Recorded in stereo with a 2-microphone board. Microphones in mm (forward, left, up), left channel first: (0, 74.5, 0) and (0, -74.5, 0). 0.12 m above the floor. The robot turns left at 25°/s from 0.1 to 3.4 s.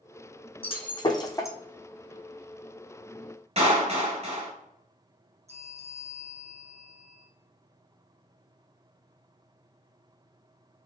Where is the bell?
45° right (ahead or behind), 1.0 m.